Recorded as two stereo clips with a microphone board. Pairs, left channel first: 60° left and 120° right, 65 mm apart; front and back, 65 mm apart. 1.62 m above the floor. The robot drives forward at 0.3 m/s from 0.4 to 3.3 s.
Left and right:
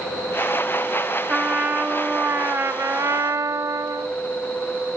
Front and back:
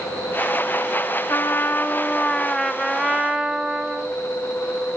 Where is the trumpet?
50° right, 0.8 m; by 4.1 s 105° right, 0.7 m.